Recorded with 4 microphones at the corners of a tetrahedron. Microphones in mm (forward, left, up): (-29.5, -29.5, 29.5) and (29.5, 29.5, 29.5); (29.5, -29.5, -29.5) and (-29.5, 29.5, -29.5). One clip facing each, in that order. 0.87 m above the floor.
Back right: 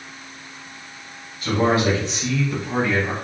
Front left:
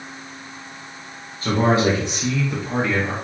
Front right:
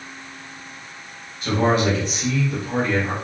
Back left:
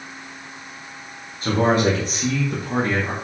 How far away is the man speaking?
About 1.4 m.